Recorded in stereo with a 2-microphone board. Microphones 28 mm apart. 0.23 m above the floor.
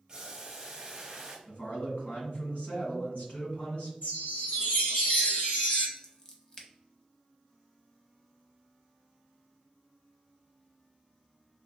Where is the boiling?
25° right (ahead or behind), 1.0 m.